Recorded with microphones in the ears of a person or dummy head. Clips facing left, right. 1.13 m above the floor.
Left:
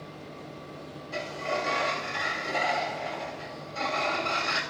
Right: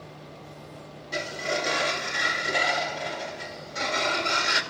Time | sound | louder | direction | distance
1.1 | a sliding door | right 2 dB | 25° right (ahead or behind) | 2 m